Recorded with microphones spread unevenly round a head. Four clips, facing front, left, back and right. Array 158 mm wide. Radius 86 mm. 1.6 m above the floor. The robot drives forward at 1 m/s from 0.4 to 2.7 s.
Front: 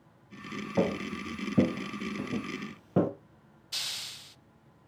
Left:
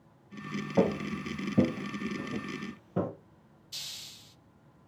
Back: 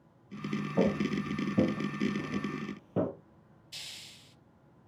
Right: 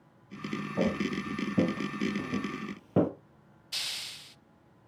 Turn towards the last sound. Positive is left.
turn(degrees=-50)